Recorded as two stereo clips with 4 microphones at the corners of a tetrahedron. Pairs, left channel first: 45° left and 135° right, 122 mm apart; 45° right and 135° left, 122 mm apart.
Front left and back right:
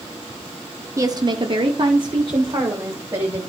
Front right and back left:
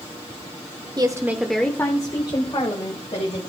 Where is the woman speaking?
170° left, 1.2 m; by 3.4 s 75° right, 3 m.